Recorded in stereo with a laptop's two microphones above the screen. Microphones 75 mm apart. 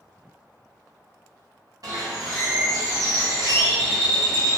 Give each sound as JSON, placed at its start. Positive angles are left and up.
{"t": 1.8, "sound": "a bird", "side_deg": -50, "distance_m": 0.8}